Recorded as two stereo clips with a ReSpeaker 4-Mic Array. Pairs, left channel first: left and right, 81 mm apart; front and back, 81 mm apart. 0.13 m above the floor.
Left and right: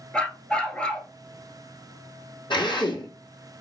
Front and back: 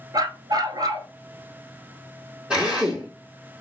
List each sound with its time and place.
0.1 s a dog barking: 165° left, 0.7 m
2.5 s a drill: 100° left, 2.5 m